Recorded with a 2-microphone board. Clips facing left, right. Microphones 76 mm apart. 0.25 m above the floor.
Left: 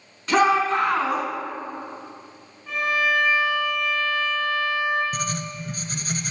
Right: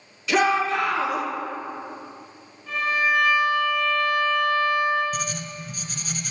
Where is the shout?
45° left (ahead or behind), 2 m.